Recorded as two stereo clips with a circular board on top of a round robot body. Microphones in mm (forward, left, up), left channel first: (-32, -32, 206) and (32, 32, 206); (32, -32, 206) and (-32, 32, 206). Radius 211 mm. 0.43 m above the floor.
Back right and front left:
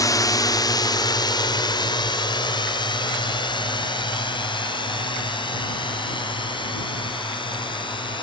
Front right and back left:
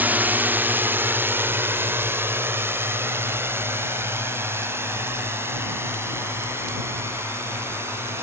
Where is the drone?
160° right.